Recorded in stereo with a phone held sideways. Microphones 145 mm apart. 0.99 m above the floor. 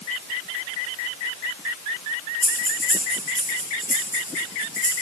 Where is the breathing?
75° left (ahead or behind), 9.5 m.